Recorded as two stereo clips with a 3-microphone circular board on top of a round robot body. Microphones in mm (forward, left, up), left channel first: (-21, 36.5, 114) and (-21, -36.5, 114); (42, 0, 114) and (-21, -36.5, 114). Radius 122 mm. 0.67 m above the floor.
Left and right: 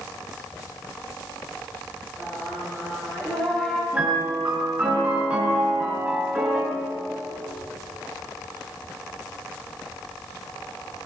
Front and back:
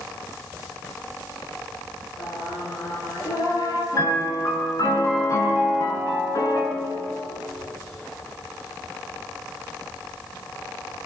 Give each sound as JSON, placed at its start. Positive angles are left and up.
{"t": 2.2, "sound": "singing", "azimuth_deg": 10, "distance_m": 10.0}
{"t": 3.9, "sound": "a piano", "azimuth_deg": -15, "distance_m": 5.5}